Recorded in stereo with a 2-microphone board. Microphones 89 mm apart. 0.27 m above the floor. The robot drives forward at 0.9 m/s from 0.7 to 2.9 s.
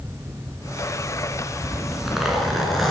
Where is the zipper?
Centre (ahead or behind), 2.5 m.